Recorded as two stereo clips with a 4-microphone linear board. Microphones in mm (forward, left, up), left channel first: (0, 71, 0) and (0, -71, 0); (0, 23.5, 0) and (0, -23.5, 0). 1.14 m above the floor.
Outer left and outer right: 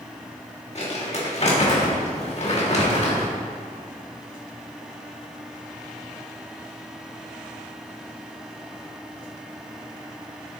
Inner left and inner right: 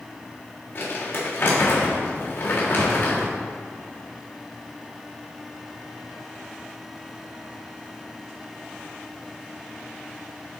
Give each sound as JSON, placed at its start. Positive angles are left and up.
{"t": 0.8, "sound": "crumpling", "side_deg": 50, "distance_m": 1.6}